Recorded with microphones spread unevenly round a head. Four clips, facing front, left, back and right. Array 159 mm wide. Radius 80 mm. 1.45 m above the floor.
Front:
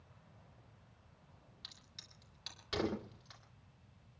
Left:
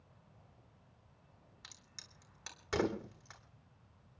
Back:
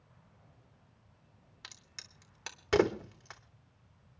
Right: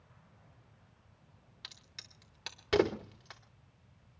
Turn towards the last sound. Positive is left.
turn(degrees=-145)